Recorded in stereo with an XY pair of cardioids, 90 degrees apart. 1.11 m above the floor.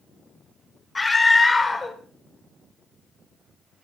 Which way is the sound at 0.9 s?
25° left.